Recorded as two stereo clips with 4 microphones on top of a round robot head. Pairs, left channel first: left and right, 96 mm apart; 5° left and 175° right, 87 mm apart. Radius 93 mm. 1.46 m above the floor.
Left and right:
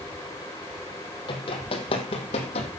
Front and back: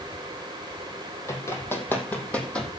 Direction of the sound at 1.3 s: 60° left.